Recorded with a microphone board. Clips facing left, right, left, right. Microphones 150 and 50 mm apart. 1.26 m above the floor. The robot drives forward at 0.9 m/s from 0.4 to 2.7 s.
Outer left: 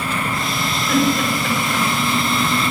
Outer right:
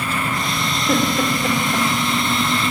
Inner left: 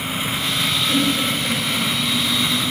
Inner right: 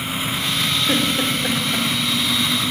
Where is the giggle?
35° right (ahead or behind), 4.5 m; by 1.9 s 45° right (ahead or behind), 4 m.